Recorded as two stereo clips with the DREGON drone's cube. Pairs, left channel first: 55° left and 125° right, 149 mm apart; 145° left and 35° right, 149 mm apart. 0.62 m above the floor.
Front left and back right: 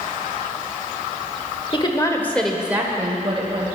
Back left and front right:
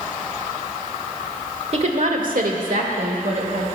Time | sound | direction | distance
1.7 | a woman speaking | 5° left | 2.0 m